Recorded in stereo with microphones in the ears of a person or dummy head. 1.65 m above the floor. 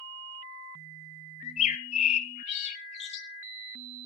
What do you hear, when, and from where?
1.4 s a bird: 45° left (ahead or behind), 1.9 m